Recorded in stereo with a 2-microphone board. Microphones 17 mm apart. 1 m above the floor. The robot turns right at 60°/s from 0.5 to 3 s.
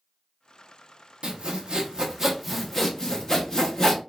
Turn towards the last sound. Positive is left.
turn(degrees=25)